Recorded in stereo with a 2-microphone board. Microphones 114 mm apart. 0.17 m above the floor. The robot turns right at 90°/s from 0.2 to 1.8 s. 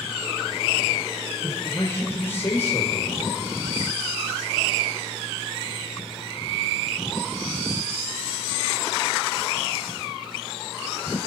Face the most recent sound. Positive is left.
turn(degrees=145)